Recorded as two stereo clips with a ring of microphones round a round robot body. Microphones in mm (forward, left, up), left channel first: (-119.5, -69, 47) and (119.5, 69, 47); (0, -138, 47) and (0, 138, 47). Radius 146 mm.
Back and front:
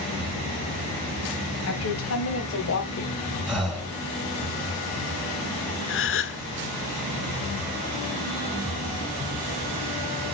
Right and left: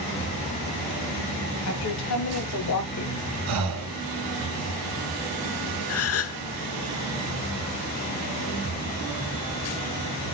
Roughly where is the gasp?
Behind right.